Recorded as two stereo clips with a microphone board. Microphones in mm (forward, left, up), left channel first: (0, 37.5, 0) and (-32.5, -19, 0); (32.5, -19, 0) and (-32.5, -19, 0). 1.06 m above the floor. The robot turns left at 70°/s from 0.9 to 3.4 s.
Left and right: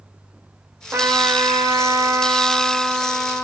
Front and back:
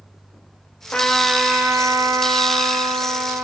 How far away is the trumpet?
About 1.1 m.